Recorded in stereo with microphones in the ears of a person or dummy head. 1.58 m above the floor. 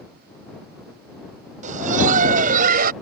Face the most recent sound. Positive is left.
turn(degrees=-55)  # may be behind; listen again after turning